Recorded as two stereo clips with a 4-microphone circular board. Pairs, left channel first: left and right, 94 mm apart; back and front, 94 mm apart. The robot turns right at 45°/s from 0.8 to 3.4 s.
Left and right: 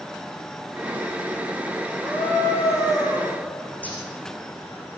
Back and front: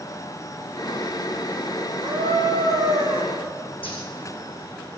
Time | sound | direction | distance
2.0 | a scream | 5° left | 4 m
3.8 | a zipper | 165° left | 7 m